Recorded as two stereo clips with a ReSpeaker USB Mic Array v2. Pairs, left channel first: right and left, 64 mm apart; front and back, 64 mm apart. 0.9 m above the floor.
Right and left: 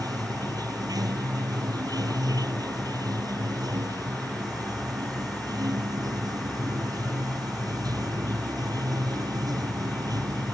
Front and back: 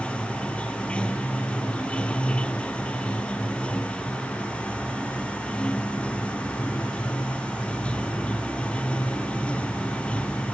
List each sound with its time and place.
0.0 s running water: 75° left